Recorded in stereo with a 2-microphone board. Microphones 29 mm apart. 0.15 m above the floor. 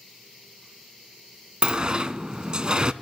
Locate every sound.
1.6 s a sliding door: 35° right (ahead or behind), 0.5 m